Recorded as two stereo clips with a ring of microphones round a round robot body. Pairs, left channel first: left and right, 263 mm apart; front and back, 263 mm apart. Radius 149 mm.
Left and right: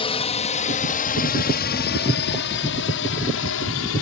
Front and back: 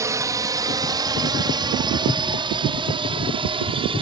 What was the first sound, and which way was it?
A drone, 120° left.